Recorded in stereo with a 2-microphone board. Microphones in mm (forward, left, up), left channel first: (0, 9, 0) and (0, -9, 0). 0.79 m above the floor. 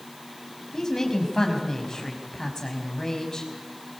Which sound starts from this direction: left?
A woman speaking, at 0.7 s.